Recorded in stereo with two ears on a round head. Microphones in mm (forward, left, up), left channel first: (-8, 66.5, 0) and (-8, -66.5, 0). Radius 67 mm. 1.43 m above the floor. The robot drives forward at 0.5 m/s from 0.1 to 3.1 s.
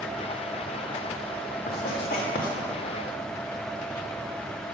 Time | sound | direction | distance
1.7 | writing | 80° left | 1.8 m